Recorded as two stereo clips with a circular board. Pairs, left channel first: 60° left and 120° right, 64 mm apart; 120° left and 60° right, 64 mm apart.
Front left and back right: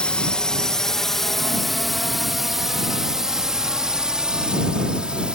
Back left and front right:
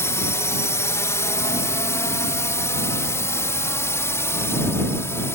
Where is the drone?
130° left; by 5.3 s 165° left.